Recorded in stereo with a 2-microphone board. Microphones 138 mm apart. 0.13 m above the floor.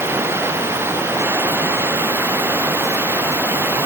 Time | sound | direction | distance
0.0 | running water | 15° right (ahead or behind) | ?